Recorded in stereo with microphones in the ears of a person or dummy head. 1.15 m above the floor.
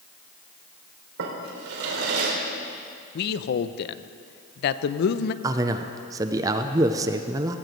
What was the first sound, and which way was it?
A drawer, 80° right.